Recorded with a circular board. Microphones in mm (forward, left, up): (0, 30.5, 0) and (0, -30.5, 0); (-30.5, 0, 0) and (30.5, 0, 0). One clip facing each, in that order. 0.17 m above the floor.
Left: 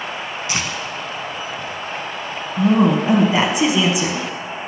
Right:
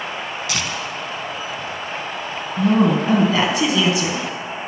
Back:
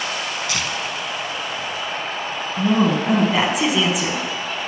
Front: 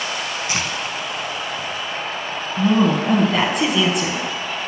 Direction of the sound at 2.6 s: 105° left.